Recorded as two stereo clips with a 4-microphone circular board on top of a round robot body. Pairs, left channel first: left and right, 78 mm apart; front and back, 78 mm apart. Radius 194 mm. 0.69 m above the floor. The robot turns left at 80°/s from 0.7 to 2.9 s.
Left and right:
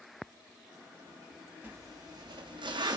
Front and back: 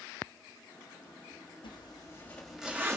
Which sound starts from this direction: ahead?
A zipper, at 1.6 s.